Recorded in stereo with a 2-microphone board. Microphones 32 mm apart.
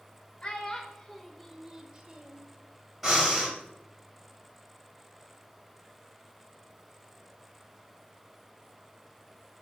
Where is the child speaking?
25° left (ahead or behind), 0.8 m; by 2.5 s 35° right (ahead or behind), 0.7 m.